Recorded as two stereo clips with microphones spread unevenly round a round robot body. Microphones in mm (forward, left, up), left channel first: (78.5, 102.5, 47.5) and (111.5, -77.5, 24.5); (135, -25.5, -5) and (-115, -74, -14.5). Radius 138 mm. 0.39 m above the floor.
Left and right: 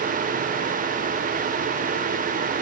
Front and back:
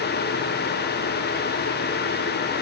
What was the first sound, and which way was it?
Only background noise.